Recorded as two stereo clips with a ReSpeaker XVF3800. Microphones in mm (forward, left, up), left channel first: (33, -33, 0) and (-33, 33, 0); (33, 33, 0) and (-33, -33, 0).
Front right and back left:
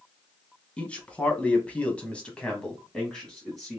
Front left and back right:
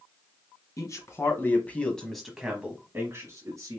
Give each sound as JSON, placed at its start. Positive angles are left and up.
{"t": 0.8, "sound": "a man speaking", "azimuth_deg": 25, "distance_m": 1.3}